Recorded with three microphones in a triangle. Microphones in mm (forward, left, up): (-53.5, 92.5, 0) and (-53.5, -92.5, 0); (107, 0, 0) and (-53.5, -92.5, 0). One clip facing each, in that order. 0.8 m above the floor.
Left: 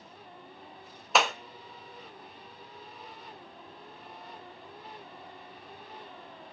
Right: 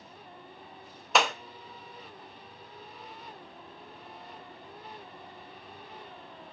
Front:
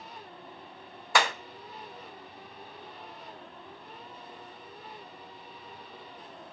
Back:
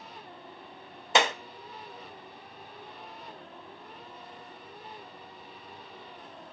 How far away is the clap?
About 0.5 m.